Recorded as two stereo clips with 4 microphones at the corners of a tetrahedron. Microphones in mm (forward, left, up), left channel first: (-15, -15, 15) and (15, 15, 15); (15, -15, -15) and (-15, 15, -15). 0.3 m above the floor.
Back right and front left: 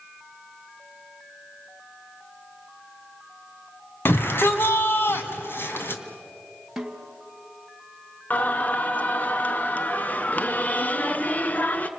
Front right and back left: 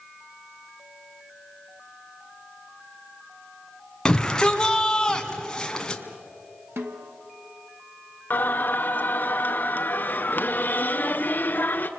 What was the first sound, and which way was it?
A shout, 115° right.